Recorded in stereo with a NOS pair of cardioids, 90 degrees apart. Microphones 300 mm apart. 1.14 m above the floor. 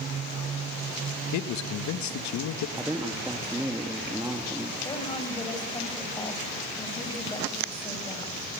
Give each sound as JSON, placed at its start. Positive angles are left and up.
{"t": 1.3, "sound": "a man speaking", "azimuth_deg": 70, "distance_m": 1.5}
{"t": 2.8, "sound": "a man speaking", "azimuth_deg": -10, "distance_m": 1.8}
{"t": 4.8, "sound": "a woman speaking", "azimuth_deg": 15, "distance_m": 6.0}